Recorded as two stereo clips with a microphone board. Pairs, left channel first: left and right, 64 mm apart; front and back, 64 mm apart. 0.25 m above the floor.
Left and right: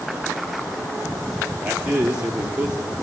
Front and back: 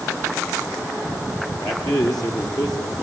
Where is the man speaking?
15° right, 6 m.